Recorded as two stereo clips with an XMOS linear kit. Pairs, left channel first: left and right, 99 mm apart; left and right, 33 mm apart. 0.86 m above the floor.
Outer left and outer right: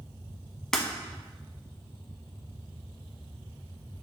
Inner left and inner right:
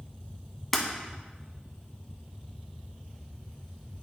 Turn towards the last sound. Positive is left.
turn(degrees=5)  # may be behind; listen again after turning